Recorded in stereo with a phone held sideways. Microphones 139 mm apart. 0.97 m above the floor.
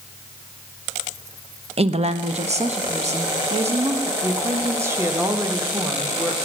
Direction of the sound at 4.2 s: 20° right (ahead or behind).